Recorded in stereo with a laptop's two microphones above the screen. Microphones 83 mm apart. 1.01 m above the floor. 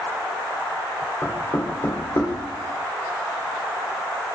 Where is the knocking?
35° left (ahead or behind), 2.0 m.